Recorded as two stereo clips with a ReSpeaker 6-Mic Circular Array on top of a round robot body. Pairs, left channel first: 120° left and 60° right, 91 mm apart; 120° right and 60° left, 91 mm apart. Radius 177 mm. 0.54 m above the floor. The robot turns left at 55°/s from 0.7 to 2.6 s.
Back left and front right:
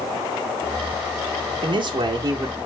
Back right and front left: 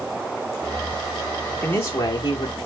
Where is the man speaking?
50° right, 1.5 m; by 2.6 s 105° right, 1.5 m.